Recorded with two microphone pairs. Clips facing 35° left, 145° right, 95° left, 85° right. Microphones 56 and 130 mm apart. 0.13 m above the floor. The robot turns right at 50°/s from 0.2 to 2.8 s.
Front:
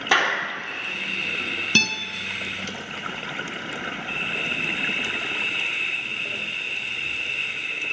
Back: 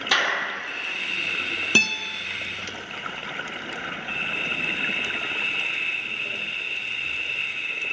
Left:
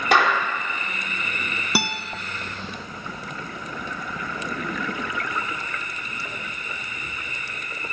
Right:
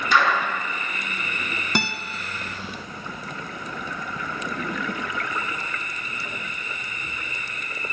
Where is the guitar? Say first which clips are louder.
Back 1 dB, left 1 dB; 165° left, 0.8 m; by 2.0 s 175° left, 0.8 m.